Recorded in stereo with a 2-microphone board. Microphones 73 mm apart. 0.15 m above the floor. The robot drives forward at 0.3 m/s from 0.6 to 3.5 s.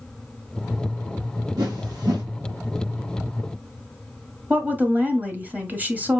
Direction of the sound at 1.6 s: 70° right (ahead or behind).